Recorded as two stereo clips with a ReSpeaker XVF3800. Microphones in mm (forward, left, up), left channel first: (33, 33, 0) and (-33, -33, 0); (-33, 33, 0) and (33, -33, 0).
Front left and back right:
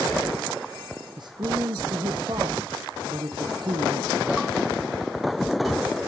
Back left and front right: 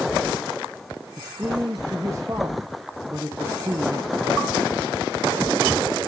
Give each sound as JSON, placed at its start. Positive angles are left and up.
{"t": 1.2, "sound": "a man speaking", "azimuth_deg": -100, "distance_m": 0.8}